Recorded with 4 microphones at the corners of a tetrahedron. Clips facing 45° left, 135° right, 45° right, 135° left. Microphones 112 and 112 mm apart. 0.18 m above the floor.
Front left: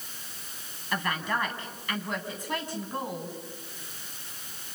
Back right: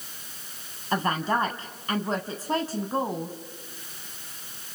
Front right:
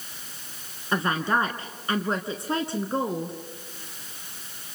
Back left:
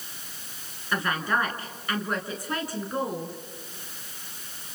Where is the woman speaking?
95° right, 1.3 m.